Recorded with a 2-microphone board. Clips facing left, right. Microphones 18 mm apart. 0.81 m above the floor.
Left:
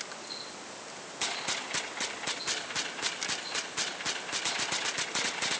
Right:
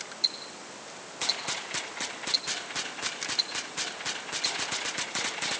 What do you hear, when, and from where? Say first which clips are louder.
0.2 s ticking: right 10 dB; 60° right (ahead or behind), 4 m